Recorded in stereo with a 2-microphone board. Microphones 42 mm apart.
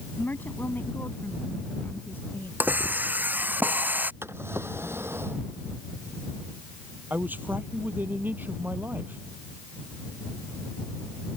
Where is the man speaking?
45° right (ahead or behind).